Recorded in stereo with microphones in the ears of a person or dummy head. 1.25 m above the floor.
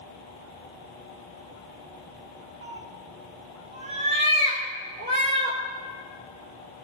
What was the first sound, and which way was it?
A cat meowing, 55° right (ahead or behind).